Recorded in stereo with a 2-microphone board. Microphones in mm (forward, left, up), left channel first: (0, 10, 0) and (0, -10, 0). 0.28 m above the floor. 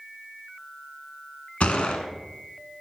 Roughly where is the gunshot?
Left.